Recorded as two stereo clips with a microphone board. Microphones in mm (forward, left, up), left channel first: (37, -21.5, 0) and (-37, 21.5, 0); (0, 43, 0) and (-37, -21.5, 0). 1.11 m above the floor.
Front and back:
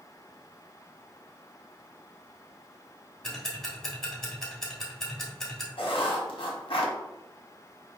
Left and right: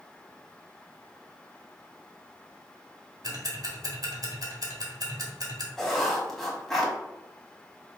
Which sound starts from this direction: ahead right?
Writing, at 5.8 s.